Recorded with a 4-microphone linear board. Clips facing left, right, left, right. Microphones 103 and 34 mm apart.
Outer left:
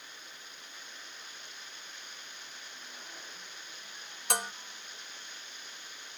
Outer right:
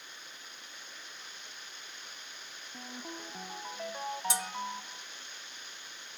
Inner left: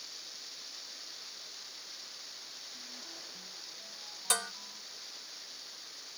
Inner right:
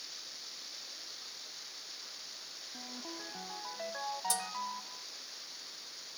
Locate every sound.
2.7 s a ringtone: 80° right
4.3 s dishes clattering: 60° left (ahead or behind)